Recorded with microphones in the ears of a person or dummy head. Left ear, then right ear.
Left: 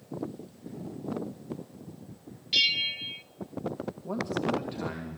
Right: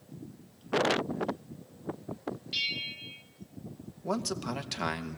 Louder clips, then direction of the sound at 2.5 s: Left 8 dB; 20° left (ahead or behind).